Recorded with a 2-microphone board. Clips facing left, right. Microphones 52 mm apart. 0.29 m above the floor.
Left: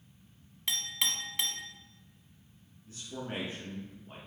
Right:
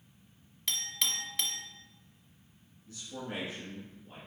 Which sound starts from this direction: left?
A man speaking, at 2.9 s.